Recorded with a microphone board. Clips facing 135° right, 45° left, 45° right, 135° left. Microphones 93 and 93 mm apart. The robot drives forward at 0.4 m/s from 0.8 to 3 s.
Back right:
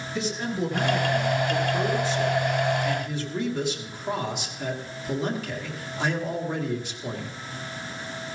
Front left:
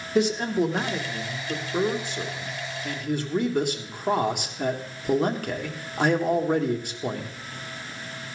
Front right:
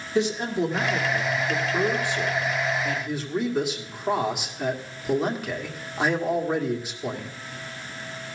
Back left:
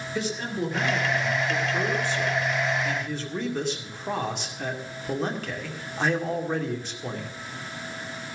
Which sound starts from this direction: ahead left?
A man speaking, at 0.1 s.